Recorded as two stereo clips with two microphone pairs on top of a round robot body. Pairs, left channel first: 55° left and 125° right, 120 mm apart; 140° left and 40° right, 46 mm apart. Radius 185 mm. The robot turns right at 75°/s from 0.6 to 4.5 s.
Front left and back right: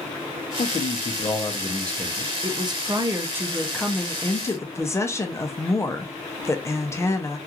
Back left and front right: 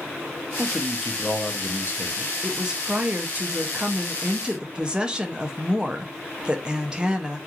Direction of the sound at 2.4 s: 130° right.